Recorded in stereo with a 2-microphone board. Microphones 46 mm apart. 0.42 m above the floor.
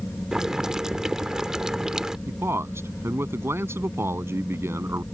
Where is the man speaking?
75° right (ahead or behind).